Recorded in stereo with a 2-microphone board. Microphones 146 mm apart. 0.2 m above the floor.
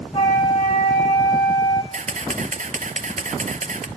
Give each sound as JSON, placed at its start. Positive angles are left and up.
{"t": 0.1, "sound": "a flute", "side_deg": 35, "distance_m": 1.7}
{"t": 1.9, "sound": "a camera shutter", "side_deg": -60, "distance_m": 1.1}